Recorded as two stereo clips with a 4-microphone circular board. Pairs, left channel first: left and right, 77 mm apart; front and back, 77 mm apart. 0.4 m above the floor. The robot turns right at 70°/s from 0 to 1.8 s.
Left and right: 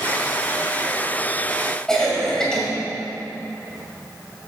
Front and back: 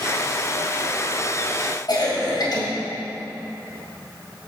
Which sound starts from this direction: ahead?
A cough, at 1.9 s.